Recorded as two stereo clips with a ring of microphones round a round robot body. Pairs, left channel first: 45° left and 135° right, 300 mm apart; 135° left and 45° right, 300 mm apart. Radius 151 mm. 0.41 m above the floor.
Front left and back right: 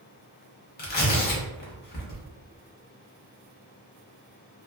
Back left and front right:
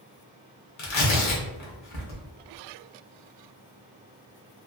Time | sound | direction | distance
0.8 | tearing paper | 105° left | 1.0 m